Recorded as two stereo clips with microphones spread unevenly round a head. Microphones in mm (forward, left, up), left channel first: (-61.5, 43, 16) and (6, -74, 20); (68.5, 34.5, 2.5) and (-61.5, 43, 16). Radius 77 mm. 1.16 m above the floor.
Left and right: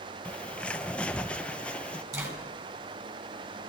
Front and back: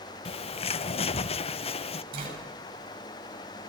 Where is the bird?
35° left, 0.5 m.